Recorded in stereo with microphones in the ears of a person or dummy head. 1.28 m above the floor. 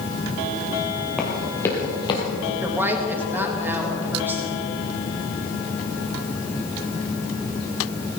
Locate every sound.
1.2 s running footsteps: 5° left (ahead or behind), 1.9 m; by 2.2 s 25° left (ahead or behind), 2 m
2.6 s a woman speaking: 15° right (ahead or behind), 1.8 m